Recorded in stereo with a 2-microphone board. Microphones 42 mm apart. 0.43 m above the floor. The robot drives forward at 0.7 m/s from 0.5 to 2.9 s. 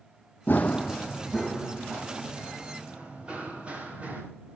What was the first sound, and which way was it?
Running footsteps, 50° left (ahead or behind).